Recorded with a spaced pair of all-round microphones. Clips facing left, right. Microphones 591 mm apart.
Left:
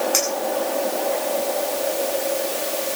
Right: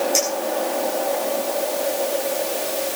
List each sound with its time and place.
0.1 s a clink: 80° left, 8.5 m